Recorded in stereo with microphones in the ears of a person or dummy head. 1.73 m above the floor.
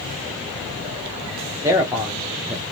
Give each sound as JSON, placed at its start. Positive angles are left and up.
{"t": 1.6, "sound": "a man speaking", "side_deg": -15, "distance_m": 1.0}